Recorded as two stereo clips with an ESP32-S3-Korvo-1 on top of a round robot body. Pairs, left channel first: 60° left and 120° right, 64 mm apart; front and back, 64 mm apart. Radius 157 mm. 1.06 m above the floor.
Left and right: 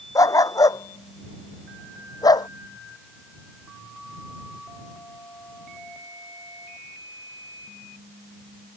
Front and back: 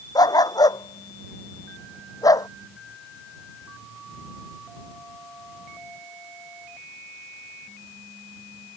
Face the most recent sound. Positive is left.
turn(degrees=35)